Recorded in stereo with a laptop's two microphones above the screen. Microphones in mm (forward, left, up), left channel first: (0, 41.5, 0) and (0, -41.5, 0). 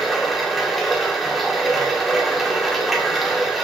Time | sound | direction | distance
0.0 | running water | centre (ahead or behind) | 0.8 m